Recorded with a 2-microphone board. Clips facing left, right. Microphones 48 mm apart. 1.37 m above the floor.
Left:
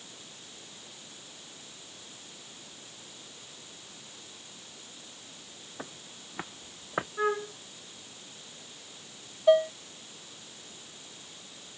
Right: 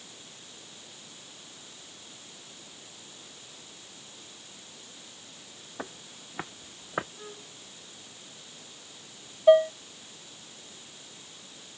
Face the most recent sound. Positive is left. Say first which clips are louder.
# right 4 dB
turn(degrees=-15)  # may be behind; listen again after turning